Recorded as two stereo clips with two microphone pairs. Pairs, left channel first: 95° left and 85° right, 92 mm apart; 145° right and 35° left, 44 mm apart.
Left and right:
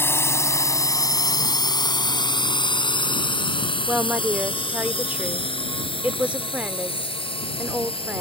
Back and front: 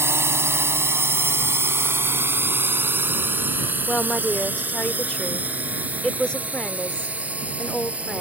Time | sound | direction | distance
0.0 | a drone | 35° left | ?
3.9 | a woman speaking | 130° right | ?